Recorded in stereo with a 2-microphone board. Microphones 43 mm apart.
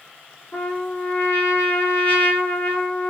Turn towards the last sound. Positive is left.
turn(degrees=65)  # may be behind; listen again after turning